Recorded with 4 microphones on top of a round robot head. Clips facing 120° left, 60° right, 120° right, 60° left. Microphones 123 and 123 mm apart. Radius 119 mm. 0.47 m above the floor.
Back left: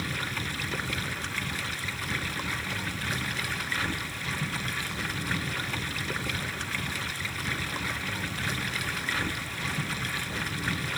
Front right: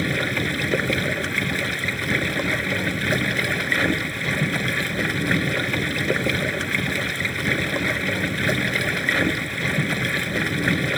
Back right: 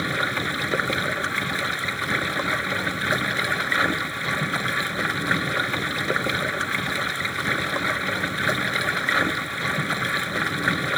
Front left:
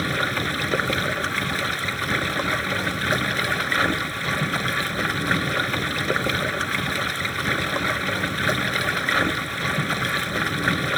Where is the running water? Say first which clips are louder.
Front right 11 dB, front left 1 dB; 30° right.